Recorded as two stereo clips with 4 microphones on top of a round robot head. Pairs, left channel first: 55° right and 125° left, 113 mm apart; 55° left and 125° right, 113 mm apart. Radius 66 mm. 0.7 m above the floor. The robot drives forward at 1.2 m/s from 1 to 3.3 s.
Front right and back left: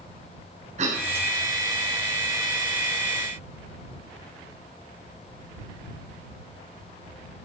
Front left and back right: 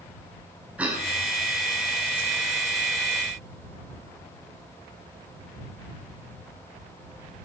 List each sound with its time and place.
0.8 s a cough: 155° left, 5.5 m